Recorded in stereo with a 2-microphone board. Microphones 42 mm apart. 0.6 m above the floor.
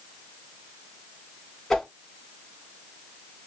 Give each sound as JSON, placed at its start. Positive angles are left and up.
{"t": 1.7, "sound": "a whoosh", "side_deg": 15, "distance_m": 1.8}